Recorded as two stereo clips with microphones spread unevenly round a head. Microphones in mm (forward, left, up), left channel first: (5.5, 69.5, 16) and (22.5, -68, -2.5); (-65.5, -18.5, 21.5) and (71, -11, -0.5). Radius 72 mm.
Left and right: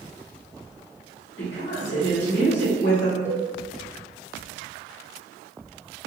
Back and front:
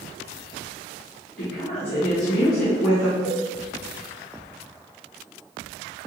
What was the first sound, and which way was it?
A woman speaking, 145° left.